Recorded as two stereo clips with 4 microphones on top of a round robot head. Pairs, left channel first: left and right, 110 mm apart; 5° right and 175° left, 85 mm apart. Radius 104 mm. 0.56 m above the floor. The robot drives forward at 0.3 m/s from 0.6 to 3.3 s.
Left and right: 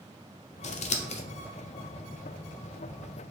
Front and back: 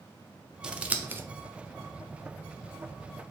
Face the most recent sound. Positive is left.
turn(degrees=145)